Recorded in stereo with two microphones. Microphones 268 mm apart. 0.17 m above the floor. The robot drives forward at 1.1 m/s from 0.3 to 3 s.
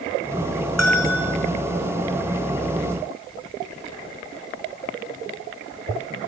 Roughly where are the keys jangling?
No keys jangling in this recording.